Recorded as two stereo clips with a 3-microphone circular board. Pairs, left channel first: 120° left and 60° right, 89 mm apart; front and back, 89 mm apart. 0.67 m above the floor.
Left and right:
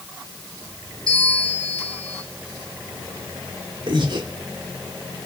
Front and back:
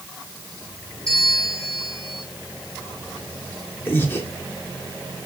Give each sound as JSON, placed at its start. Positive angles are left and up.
{"t": 1.1, "sound": "a bell", "azimuth_deg": -15, "distance_m": 4.0}
{"t": 3.9, "sound": "breathing", "azimuth_deg": -60, "distance_m": 2.0}